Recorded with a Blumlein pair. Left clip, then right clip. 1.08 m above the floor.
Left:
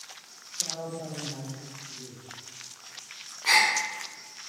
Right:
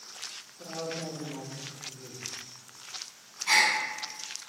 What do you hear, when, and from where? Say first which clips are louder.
0.6 s a man speaking: left 3 dB; 20° right, 1.8 m
3.5 s a gasp: left 2 dB; 40° left, 1.6 m